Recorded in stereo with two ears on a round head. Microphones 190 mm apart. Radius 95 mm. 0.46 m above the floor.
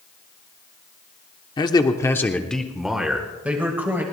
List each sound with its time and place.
1.6 s a man speaking: 20° left (ahead or behind), 0.9 m; by 4.0 s 10° right (ahead or behind), 2 m